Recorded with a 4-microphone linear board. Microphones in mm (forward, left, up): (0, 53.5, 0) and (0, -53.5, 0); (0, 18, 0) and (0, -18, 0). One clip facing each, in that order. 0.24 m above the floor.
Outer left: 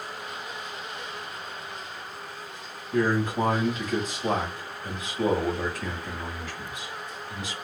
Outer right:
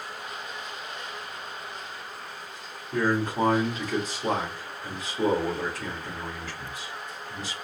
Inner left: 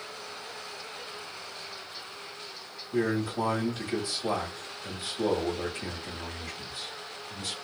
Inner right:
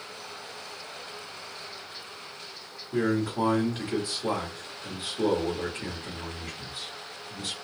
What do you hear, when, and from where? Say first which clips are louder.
2.9 s a man speaking: outer left 1 dB, inner right 2 dB; 35° right (ahead or behind), 1.8 m